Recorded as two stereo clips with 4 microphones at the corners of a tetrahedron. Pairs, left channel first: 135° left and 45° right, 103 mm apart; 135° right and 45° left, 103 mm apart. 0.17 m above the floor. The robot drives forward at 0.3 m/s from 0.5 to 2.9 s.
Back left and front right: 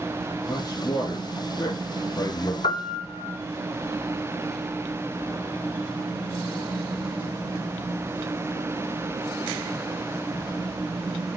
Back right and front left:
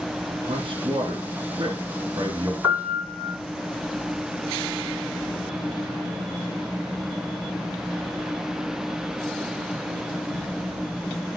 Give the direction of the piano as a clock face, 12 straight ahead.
8 o'clock.